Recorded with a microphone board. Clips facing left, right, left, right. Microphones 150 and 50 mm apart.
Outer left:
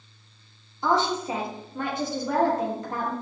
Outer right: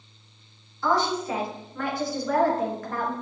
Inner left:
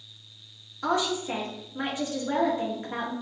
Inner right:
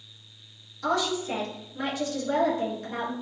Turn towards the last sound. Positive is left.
turn(degrees=20)  # may be behind; listen again after turning